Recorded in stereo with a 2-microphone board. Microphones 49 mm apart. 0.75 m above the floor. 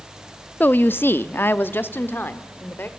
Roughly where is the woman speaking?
Left.